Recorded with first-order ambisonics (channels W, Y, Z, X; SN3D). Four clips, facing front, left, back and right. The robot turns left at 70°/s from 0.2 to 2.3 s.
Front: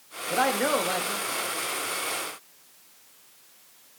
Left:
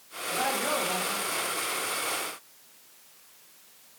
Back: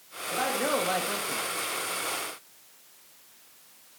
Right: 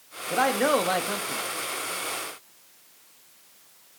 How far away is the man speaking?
About 1.3 m.